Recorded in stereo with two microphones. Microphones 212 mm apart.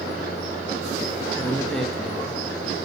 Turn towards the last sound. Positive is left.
turn(degrees=5)  # may be behind; listen again after turning